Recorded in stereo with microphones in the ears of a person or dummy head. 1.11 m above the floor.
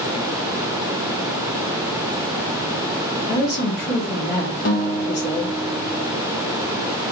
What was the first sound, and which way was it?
A woman speaking, 55° left (ahead or behind).